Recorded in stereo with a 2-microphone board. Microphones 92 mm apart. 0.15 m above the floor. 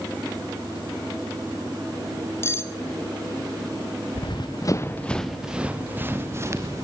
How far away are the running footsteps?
About 1.6 m.